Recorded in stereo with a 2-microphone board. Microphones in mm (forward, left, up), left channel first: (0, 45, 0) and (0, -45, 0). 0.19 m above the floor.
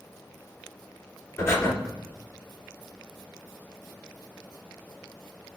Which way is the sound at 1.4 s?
30° left (ahead or behind).